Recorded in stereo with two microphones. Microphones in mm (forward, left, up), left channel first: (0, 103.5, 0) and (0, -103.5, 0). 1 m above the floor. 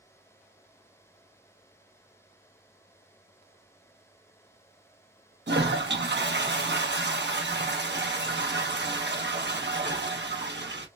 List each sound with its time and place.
5.5 s a toilet flushing: 60° right (ahead or behind), 0.7 m